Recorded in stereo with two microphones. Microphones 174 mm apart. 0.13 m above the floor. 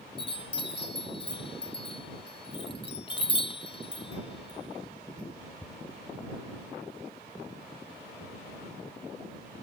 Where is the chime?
30° left (ahead or behind).